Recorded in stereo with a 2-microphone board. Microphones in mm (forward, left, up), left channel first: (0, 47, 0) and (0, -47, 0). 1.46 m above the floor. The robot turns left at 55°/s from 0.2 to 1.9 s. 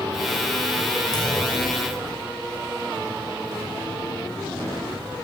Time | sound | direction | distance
1.1 | a clunk | 45° left | 5.5 m